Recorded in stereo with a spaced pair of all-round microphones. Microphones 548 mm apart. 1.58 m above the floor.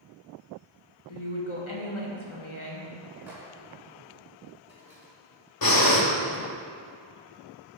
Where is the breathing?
40° left (ahead or behind), 0.9 m.